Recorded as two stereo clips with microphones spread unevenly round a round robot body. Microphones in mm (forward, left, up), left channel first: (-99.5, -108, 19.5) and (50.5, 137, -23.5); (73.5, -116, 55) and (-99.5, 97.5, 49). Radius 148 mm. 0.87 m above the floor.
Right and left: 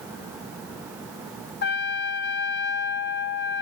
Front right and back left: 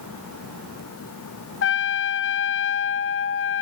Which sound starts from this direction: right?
A trumpet, at 1.6 s.